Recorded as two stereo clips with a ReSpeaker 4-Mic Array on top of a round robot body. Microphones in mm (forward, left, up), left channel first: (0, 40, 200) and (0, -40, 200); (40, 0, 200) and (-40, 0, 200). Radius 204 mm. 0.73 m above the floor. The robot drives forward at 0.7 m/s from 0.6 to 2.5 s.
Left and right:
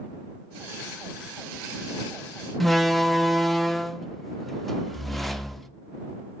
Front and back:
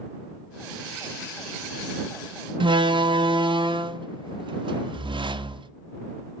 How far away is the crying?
No crying in this recording.